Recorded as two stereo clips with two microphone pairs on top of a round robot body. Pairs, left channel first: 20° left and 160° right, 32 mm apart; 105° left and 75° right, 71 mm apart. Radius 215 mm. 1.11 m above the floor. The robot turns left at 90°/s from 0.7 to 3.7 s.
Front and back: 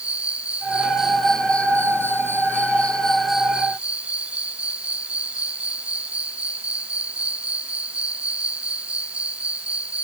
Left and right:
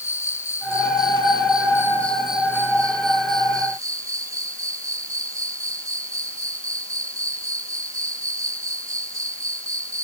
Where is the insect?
155° left; by 10.1 s 115° right.